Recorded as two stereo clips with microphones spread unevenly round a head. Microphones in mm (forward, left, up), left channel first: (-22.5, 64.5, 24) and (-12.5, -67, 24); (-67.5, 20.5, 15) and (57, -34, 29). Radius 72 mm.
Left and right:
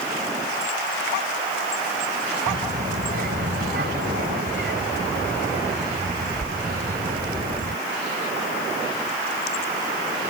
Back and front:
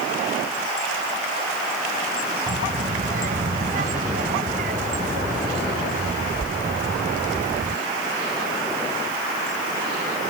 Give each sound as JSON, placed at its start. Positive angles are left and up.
{"t": 2.5, "sound": "a child speaking", "azimuth_deg": -55}